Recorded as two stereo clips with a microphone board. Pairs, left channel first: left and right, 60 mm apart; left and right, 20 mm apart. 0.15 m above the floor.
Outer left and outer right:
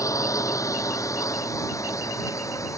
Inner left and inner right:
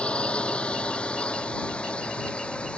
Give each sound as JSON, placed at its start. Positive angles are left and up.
{"t": 0.0, "sound": "a drone", "side_deg": 70}